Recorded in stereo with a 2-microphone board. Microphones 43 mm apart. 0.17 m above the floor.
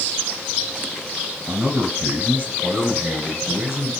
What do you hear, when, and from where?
1.5 s a man speaking: 25° right (ahead or behind), 1.6 m; by 3.9 s 15° right (ahead or behind), 3 m